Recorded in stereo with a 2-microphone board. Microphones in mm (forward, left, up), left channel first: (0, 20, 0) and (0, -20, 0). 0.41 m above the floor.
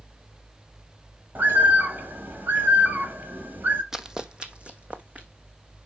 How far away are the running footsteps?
About 0.6 m.